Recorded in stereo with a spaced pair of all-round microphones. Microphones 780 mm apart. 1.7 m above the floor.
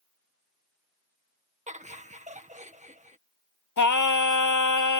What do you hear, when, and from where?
1.7 s laughter: 10° right (ahead or behind)
3.8 s singing: 25° left (ahead or behind)